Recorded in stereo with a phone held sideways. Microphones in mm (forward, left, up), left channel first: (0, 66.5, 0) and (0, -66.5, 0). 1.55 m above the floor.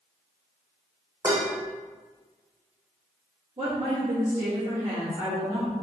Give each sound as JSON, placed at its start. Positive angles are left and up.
{"t": 1.2, "sound": "dishes clattering", "side_deg": -20, "distance_m": 0.8}
{"t": 3.6, "sound": "a woman speaking", "side_deg": -65, "distance_m": 1.8}